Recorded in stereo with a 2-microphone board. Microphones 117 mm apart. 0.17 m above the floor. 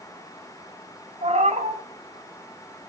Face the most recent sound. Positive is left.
turn(degrees=-90)